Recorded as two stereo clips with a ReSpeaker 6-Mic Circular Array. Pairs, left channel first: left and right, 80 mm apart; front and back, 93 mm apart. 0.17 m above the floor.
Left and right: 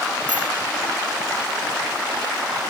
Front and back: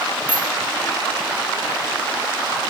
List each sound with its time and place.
0.3 s a bicycle bell: 20° right, 3 m